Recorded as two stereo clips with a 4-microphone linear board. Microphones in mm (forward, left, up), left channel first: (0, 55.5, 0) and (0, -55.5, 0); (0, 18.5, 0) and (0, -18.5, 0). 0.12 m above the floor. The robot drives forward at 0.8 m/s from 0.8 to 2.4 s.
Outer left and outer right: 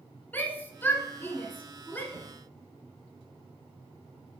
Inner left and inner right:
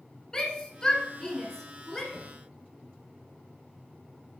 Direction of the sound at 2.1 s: 10° left (ahead or behind).